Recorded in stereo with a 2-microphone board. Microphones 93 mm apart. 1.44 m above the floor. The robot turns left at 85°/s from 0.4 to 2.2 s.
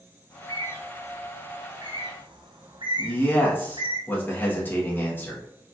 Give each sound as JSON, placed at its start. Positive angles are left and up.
{"t": 0.3, "sound": "a bird", "side_deg": 50, "distance_m": 0.7}
{"t": 3.0, "sound": "a man speaking", "side_deg": 20, "distance_m": 1.5}